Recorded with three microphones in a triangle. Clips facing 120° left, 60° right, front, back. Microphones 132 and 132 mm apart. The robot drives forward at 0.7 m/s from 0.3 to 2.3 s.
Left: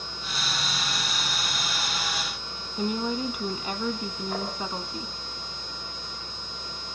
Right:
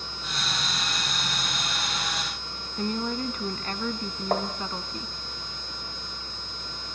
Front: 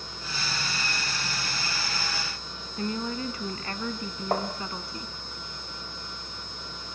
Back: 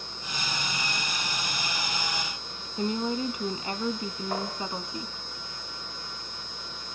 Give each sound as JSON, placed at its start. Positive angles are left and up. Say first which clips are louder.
{"t": 2.8, "sound": "a woman speaking", "louder": "left 1 dB, back 3 dB", "azimuth_deg": 175, "distance_m": 1.1}
{"t": 4.3, "sound": "tapping", "louder": "right 7 dB, front 5 dB", "azimuth_deg": -40, "distance_m": 5.0}